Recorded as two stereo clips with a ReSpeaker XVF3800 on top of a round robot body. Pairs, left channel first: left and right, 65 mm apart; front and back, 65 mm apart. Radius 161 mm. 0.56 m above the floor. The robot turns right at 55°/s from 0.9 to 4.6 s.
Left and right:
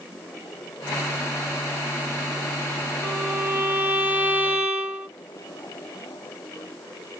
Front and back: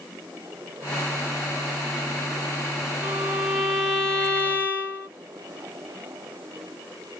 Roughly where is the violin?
Behind right.